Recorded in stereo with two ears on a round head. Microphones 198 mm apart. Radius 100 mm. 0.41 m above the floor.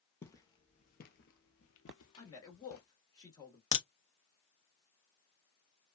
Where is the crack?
55° left (ahead or behind), 0.8 m.